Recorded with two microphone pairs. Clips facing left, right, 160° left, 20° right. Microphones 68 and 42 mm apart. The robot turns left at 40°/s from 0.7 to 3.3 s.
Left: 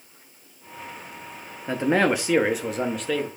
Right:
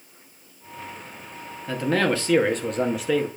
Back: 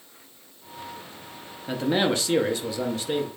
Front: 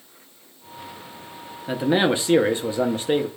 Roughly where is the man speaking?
Ahead left.